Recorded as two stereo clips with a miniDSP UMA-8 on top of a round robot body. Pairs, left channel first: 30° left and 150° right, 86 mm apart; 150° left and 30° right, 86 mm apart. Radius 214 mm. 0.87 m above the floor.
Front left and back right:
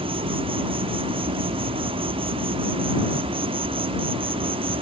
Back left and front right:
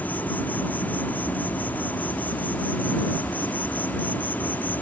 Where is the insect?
140° right.